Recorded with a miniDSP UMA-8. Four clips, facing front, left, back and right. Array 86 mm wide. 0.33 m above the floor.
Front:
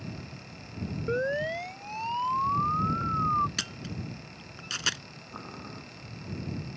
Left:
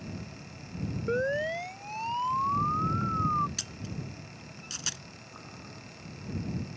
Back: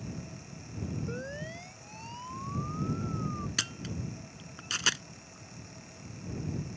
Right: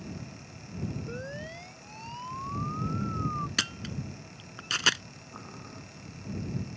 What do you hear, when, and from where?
1.1 s a siren: 45° left; by 3.5 s 25° left
3.6 s a camera shutter: 95° right
5.3 s boiling: 15° right